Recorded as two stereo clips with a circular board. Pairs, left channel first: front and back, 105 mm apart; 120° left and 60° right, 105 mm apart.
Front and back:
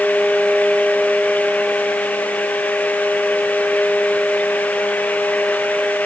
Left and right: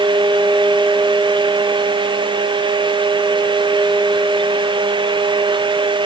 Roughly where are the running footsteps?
I don't hear running footsteps.